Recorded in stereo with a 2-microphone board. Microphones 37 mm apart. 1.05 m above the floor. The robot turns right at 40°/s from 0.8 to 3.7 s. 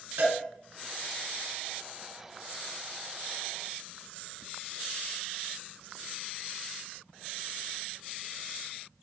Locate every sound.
0.2 s a cowbell: 80° right, 3.5 m